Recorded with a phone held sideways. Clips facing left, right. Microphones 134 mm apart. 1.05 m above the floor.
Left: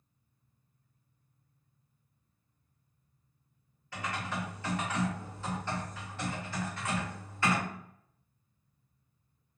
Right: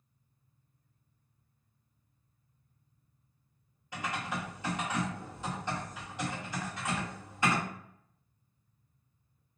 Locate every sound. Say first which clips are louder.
3.9 s typing on a keyboard: even; 15° right (ahead or behind), 1.2 m